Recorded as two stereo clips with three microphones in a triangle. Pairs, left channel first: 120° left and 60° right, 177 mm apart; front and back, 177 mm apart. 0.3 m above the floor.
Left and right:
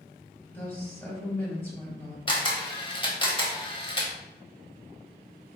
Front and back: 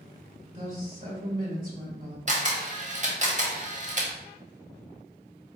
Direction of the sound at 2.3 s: 165° left.